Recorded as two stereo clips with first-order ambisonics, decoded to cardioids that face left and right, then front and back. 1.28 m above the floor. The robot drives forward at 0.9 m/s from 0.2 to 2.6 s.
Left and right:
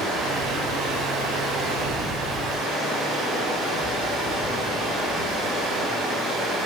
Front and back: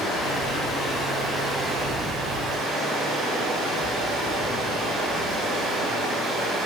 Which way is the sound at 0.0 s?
50° right.